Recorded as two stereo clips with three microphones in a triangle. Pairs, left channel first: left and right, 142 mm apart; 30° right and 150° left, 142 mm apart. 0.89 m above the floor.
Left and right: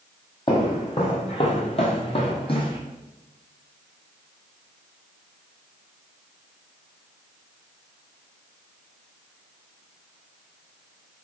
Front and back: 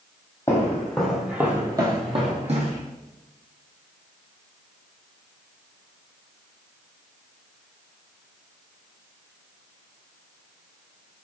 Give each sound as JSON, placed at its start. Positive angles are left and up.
{"t": 0.5, "sound": "footsteps", "azimuth_deg": 35, "distance_m": 1.4}